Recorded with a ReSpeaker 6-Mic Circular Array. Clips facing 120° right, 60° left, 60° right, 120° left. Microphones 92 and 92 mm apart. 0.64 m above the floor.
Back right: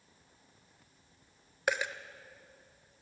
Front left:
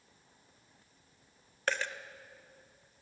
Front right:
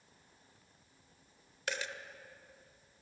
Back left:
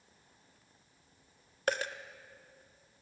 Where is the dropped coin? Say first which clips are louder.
Back right 2 dB, back left 7 dB; 165° left, 0.6 m.